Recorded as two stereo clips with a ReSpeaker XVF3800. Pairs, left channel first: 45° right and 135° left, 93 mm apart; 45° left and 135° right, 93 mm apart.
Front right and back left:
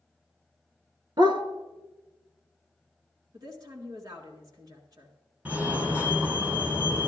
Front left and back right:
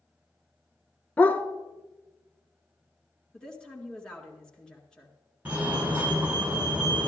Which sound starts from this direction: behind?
A fire alarm, at 5.5 s.